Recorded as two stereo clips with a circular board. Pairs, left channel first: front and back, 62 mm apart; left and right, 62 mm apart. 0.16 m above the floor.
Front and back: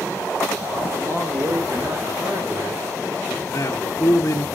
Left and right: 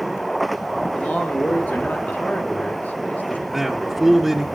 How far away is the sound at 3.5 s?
About 2 m.